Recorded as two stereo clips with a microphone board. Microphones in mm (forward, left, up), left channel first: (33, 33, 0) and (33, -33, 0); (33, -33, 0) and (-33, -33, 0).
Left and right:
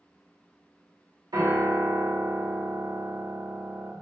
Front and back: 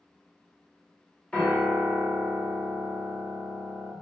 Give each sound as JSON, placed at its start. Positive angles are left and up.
{"t": 1.3, "sound": "a piano", "azimuth_deg": -75, "distance_m": 0.8}